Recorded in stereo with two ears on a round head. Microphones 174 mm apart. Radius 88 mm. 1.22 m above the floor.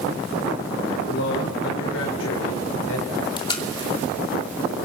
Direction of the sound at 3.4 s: 25° left (ahead or behind).